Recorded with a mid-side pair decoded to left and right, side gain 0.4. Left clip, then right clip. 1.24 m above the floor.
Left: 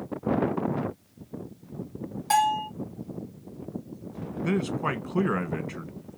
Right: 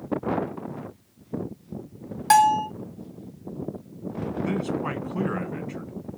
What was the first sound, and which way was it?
A bell, 70° right.